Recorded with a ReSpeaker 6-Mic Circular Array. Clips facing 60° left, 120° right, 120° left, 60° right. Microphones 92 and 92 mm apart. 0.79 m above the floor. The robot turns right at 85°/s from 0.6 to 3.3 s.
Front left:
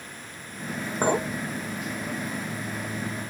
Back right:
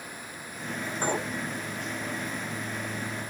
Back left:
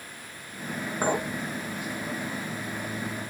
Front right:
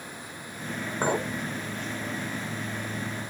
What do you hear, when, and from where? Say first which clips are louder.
1.0 s a clink: front left 6 dB, even; 25° left, 1.3 m; by 1.3 s 50° left, 1.3 m